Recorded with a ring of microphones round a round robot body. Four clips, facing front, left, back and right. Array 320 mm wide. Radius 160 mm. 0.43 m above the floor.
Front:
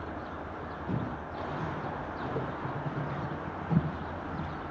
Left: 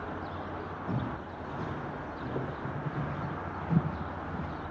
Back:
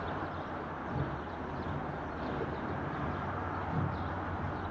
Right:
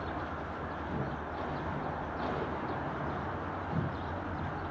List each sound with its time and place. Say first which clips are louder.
0.9 s footsteps: left 3 dB, front 5 dB; 50° left, 9 m; by 4.6 s 55° left, 12 m